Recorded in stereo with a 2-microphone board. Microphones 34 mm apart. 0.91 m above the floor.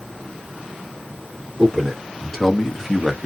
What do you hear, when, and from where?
1.6 s a man speaking: 15° left (ahead or behind), 1.8 m; by 3.3 s 5° right (ahead or behind), 0.8 m